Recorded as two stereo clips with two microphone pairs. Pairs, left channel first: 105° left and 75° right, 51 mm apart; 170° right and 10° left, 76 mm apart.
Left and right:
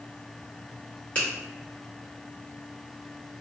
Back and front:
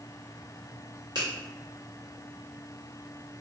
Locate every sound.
1.1 s a finger snap: 40° left, 1.5 m